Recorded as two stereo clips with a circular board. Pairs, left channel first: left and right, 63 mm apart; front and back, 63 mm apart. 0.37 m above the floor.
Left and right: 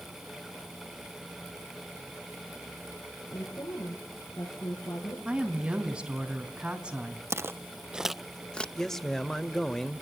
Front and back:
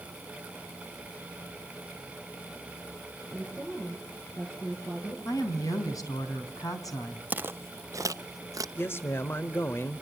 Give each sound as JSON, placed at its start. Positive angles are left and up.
{"t": 3.3, "sound": "a woman speaking", "azimuth_deg": 70, "distance_m": 7.5}
{"t": 5.2, "sound": "a woman speaking", "azimuth_deg": -15, "distance_m": 3.5}
{"t": 7.3, "sound": "footsteps", "azimuth_deg": -120, "distance_m": 0.6}
{"t": 8.8, "sound": "a man speaking", "azimuth_deg": 15, "distance_m": 1.0}